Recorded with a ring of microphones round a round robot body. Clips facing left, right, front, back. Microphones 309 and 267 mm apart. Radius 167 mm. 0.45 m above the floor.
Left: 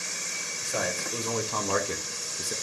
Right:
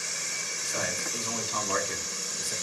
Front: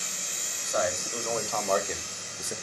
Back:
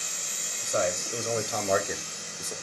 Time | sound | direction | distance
0.6 | a man speaking | 125° left | 2.5 m